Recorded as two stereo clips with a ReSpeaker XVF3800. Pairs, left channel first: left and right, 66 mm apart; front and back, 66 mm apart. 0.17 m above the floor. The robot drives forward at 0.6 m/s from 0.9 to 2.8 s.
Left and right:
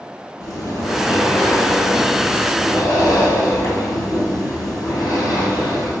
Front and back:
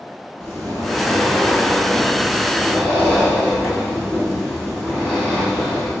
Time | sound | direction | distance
0.4 | breathing | 75° left | 2 m